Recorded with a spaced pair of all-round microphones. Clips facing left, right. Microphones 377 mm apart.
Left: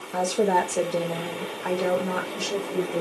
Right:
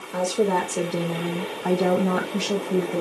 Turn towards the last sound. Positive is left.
turn(degrees=-75)  # may be behind; listen again after turning